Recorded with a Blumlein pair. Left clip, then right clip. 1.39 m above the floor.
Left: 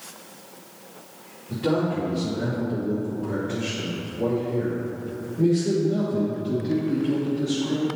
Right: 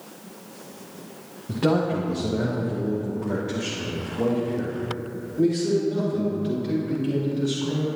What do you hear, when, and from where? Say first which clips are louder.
1.5 s a man speaking: right 2 dB; 55° right, 1.6 m; by 7.9 s 15° right, 4.5 m